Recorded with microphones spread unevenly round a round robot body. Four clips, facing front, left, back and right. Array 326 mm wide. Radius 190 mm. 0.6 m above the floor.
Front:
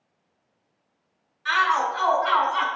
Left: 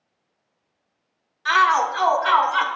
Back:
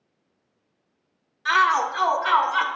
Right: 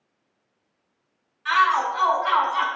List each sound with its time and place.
1.4 s a shout: 155° left, 0.9 m